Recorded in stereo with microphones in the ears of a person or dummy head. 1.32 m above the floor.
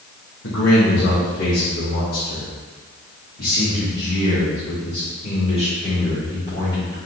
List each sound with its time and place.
0.4 s a man speaking: 75° left (ahead or behind), 1.9 m; by 7.0 s 25° left (ahead or behind), 4.5 m